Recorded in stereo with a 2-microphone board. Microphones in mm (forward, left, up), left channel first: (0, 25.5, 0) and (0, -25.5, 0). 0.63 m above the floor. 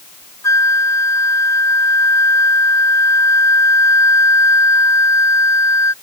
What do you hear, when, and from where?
0.4 s a flute: 80° left